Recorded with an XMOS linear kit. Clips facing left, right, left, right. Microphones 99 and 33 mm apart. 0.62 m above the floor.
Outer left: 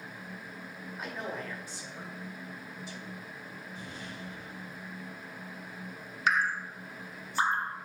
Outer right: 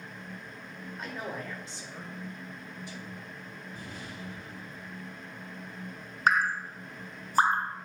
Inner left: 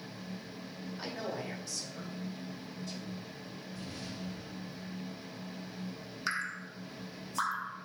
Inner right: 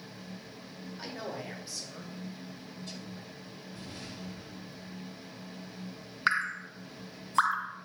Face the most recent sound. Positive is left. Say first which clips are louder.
# outer right 3 dB, inner right 7 dB
turn(degrees=-40)  # may be behind; listen again after turning